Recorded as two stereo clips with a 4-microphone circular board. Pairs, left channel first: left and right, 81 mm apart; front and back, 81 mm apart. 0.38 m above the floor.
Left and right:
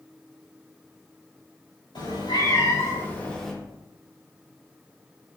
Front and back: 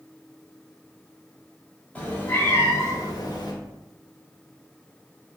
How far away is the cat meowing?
About 0.9 m.